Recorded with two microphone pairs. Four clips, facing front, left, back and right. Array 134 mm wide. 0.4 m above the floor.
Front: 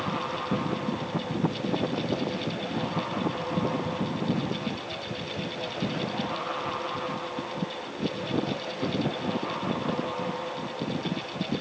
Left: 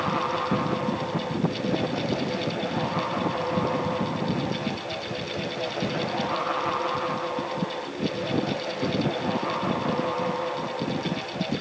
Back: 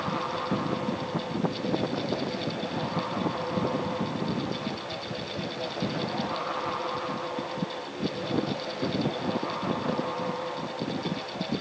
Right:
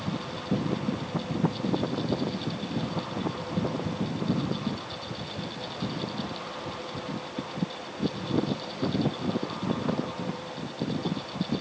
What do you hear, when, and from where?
Only background noise.